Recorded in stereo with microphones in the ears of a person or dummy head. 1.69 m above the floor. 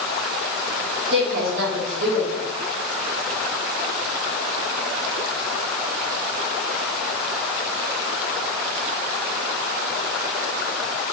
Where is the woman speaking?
65° right (ahead or behind), 1.2 m.